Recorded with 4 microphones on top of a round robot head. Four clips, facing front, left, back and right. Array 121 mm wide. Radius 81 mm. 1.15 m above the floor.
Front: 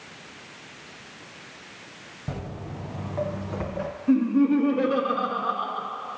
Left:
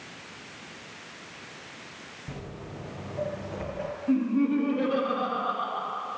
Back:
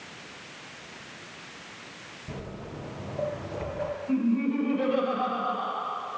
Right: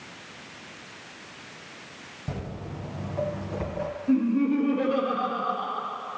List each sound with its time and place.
2.3 s footsteps: 25° right, 2 m; by 3.9 s 10° right, 3 m
4.1 s laughter: 5° left, 2 m